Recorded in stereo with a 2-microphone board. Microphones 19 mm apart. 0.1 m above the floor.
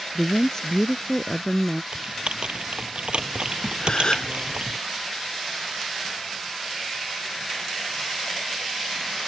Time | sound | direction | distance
0.1 | a woman speaking | 30° left (ahead or behind) | ?
1.9 | typing on a keyboard | 60° right (ahead or behind) | ?
3.8 | a gasp | 45° left (ahead or behind) | ?